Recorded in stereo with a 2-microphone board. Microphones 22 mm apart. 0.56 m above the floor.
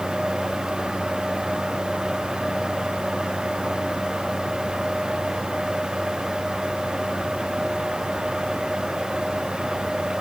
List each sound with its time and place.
Only background noise.